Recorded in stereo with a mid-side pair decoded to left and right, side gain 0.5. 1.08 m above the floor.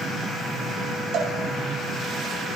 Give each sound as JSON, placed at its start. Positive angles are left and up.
{"t": 1.1, "sound": "a cowbell", "azimuth_deg": -65, "distance_m": 8.5}